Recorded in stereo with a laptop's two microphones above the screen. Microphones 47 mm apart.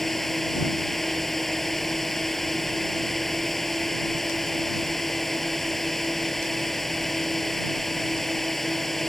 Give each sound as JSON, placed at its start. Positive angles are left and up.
{"t": 0.0, "sound": "a drone", "side_deg": 5}